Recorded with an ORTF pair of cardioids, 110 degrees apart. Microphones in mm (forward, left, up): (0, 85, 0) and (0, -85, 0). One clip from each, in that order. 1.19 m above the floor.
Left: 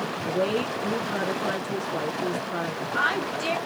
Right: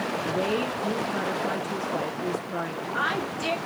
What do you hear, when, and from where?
0.2 s a woman speaking: 5° left, 0.6 m